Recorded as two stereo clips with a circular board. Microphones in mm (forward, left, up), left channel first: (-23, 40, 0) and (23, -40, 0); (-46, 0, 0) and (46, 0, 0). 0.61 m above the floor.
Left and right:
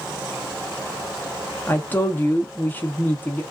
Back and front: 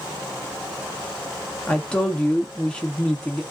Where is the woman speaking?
125° left, 0.6 m.